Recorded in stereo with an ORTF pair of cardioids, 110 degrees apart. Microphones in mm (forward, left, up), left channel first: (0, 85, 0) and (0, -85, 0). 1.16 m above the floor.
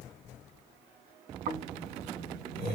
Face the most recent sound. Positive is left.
turn(degrees=-70)